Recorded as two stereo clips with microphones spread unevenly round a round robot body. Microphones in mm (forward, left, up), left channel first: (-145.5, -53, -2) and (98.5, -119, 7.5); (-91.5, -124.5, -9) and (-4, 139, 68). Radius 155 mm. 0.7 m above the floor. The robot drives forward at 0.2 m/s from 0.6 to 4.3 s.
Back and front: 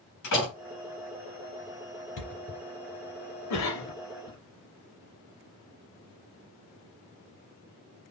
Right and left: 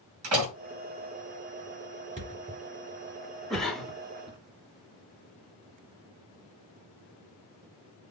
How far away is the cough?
About 1.6 m.